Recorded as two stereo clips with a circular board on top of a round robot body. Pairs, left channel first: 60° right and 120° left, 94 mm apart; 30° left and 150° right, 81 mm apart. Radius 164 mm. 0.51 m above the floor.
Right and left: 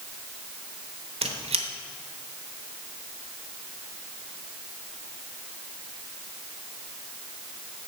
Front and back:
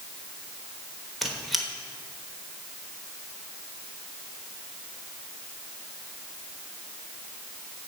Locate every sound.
1.2 s a squeak: 120° left, 1.1 m